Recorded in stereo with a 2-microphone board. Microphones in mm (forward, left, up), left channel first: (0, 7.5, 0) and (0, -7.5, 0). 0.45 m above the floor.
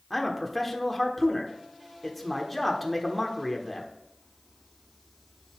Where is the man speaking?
Centre (ahead or behind), 1.2 m.